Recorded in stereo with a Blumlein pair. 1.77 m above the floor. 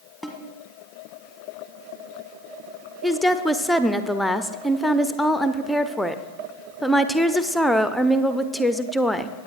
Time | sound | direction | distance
0.2 | a snare drum | 5° right | 1.7 m
3.0 | a woman speaking | straight ahead | 0.7 m